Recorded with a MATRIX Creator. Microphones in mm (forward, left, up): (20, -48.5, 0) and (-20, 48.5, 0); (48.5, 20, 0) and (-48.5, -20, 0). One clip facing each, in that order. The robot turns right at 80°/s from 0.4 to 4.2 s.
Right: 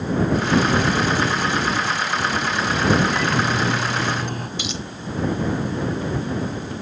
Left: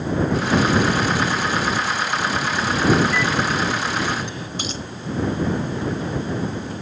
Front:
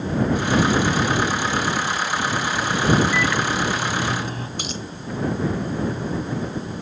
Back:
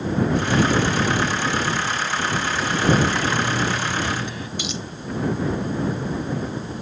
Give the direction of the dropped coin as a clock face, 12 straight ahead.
10 o'clock.